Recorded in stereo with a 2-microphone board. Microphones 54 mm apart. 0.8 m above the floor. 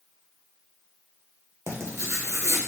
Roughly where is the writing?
Right.